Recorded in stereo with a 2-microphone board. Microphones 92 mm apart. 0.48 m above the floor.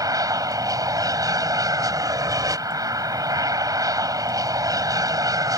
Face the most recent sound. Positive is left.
turn(degrees=-40)  # may be behind; listen again after turning